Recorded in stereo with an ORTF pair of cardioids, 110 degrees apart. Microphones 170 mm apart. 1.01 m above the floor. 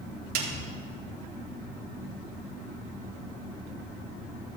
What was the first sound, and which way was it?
A snare drum, 60° right.